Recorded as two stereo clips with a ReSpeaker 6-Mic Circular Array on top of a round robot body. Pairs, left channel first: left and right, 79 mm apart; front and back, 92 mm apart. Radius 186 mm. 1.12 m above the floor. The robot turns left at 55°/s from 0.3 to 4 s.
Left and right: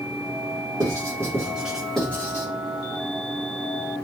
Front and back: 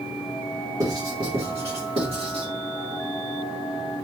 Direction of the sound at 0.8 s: 125° right.